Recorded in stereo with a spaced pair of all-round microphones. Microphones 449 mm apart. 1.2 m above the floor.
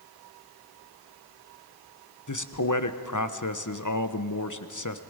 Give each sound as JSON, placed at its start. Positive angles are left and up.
{"t": 2.3, "sound": "a man speaking", "side_deg": 40, "distance_m": 1.1}